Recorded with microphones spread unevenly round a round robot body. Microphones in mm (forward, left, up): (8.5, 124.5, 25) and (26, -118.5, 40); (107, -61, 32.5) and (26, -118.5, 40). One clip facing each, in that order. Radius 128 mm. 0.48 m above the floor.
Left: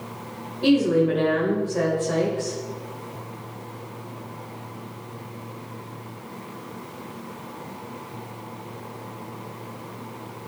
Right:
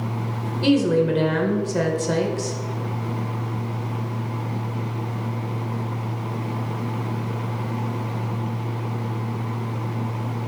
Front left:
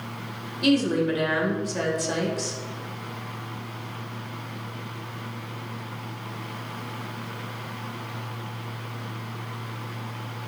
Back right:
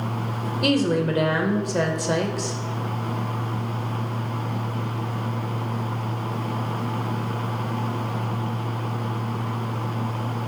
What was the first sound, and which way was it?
A woman speaking, 110° right.